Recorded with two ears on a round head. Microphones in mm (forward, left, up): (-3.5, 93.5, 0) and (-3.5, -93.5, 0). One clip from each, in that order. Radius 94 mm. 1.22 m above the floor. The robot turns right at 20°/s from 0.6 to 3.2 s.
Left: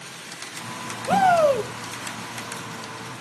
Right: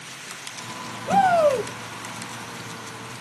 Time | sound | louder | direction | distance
1.1 | a shout | even | 10° left (ahead or behind) | 0.8 m